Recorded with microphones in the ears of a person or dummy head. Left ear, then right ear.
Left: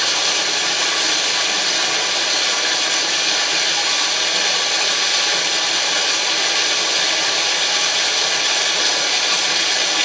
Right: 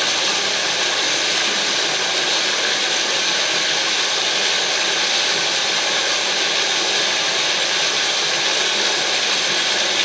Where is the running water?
10° left (ahead or behind), 8 m.